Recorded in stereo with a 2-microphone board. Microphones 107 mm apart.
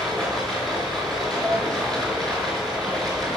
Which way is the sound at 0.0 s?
5° left (ahead or behind).